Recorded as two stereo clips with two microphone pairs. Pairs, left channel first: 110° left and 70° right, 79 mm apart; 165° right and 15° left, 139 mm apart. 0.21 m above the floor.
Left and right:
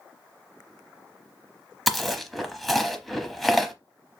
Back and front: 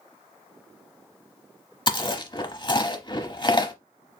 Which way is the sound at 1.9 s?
170° right.